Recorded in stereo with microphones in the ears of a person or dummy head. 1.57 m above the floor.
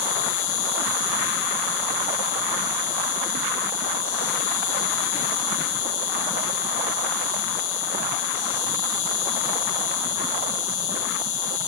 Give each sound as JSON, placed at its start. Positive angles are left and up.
{"t": 0.0, "sound": "an insect", "side_deg": 50, "distance_m": 0.9}